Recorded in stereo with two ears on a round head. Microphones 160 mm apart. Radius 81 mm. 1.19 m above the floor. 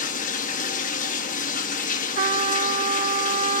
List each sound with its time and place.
0.0 s running water: 50° left (ahead or behind), 1.0 m
2.2 s a trumpet: 35° right (ahead or behind), 0.6 m